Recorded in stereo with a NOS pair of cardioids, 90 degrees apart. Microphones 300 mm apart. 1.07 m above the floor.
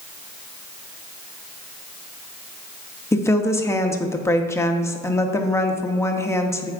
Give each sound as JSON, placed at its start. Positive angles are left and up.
{"t": 3.1, "sound": "a woman speaking", "azimuth_deg": 10, "distance_m": 1.1}